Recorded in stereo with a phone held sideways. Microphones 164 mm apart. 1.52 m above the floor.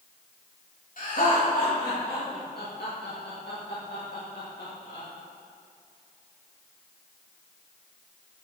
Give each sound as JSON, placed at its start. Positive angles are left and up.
{"t": 1.0, "sound": "laughter", "side_deg": 55, "distance_m": 3.0}